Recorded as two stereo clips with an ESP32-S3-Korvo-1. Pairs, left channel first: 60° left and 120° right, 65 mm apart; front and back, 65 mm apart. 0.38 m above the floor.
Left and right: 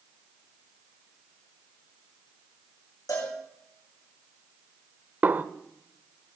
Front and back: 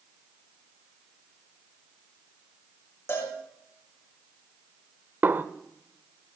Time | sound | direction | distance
3.1 | a cowbell | 45° left | 5 m
5.2 | a snare drum | 160° right | 0.6 m